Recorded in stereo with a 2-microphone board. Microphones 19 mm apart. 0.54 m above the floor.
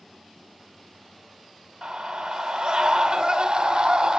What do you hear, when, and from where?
1.8 s a scream: 50° right (ahead or behind), 2 m